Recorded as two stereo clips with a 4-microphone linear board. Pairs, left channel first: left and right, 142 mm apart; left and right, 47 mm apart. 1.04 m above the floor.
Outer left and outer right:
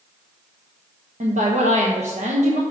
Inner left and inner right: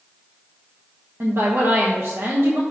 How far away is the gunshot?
I don't hear a gunshot.